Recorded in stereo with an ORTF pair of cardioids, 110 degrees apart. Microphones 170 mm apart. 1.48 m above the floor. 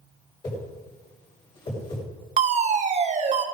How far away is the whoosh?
About 7.5 m.